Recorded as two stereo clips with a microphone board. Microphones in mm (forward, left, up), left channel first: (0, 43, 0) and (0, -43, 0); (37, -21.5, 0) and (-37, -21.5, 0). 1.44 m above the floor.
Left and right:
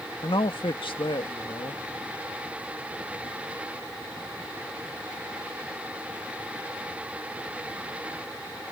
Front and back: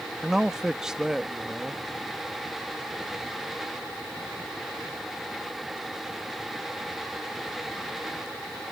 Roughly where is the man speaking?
Left.